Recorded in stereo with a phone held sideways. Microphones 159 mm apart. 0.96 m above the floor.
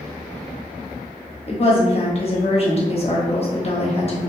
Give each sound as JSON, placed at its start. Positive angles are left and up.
{"t": 1.5, "sound": "a woman speaking", "side_deg": 40, "distance_m": 0.9}